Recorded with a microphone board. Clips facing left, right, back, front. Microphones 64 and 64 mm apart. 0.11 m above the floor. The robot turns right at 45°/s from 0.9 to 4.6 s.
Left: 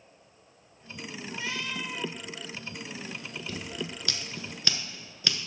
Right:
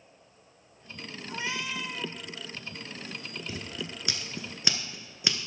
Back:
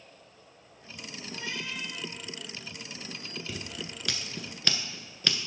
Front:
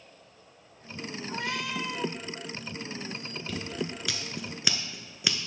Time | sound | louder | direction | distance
1.3 | a cat meowing | right 2 dB, front 4 dB | 30° right | 0.7 m
3.5 | scissors | left 3 dB, front 6 dB | 110° right | 1.2 m